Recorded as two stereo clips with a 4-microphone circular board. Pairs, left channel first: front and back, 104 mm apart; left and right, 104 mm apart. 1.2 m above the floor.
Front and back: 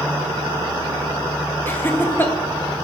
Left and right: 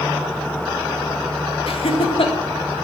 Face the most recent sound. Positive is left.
turn(degrees=70)